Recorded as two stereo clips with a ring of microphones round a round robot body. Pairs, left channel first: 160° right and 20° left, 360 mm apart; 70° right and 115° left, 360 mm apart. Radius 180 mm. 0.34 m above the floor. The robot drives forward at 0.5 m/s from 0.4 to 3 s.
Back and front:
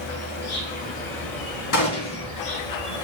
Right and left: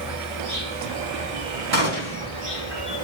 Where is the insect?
145° left, 3.5 m; by 3.0 s 155° left, 4.5 m.